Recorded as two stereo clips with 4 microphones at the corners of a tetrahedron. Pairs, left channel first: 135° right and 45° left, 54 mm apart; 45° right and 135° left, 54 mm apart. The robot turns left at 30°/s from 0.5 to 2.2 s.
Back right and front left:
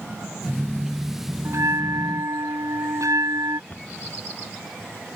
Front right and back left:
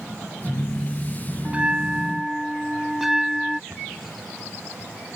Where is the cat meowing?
No cat meowing in this recording.